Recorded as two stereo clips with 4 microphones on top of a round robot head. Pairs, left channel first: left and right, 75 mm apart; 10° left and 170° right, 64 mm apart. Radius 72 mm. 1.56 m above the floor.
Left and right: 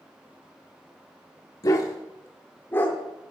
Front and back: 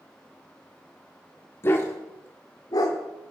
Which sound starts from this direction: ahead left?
A dog barking, at 1.6 s.